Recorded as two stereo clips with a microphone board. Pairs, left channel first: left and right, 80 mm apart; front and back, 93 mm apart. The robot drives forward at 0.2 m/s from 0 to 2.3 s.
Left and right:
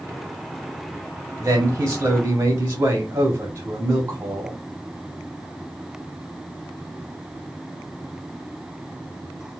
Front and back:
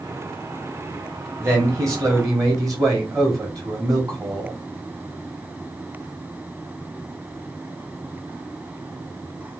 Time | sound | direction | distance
1.4 | a man speaking | 130° right | 1.2 m